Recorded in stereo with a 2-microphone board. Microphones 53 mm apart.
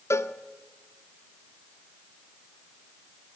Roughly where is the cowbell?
Left.